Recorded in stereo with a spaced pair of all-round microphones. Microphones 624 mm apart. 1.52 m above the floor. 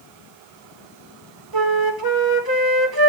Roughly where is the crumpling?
No crumpling in this recording.